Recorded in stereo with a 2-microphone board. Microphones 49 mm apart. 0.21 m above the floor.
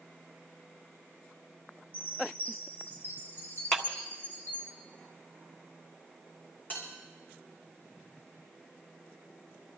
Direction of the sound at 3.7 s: 20° left (ahead or behind).